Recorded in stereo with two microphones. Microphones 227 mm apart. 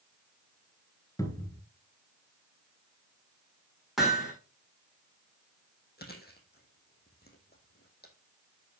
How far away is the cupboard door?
About 1.3 m.